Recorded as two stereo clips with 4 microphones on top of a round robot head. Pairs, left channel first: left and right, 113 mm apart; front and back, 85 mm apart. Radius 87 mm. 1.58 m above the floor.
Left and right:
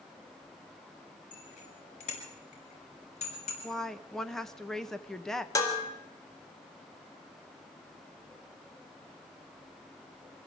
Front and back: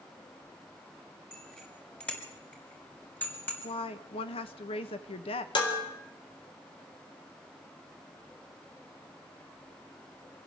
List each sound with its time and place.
1.3 s a bicycle bell: 80° left, 6 m; by 3.5 s 65° left, 7 m
3.6 s a woman speaking: 5° left, 1.4 m
5.5 s dishes clattering: 30° left, 4 m